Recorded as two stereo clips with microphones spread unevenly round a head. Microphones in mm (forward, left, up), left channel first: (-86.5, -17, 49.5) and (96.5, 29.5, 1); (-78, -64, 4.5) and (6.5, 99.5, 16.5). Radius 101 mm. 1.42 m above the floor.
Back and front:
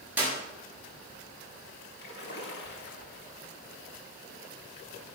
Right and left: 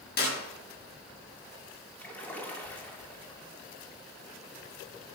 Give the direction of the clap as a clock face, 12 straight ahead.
2 o'clock.